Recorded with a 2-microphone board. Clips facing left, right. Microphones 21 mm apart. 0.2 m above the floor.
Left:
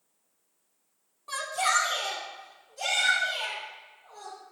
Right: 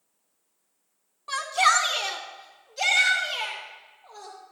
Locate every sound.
1.3 s a shout: 25° right (ahead or behind), 1.3 m; by 4.3 s 60° right (ahead or behind), 5 m